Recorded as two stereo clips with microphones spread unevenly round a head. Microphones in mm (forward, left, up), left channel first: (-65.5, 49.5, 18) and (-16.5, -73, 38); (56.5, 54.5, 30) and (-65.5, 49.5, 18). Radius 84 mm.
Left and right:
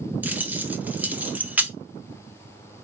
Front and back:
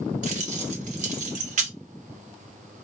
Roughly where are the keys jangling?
Behind right.